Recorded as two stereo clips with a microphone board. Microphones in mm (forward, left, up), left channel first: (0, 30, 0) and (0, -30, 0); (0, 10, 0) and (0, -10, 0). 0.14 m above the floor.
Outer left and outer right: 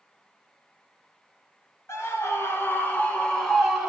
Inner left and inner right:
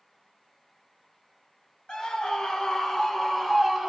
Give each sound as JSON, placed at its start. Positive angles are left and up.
{"t": 1.9, "sound": "a scream", "side_deg": 50, "distance_m": 1.9}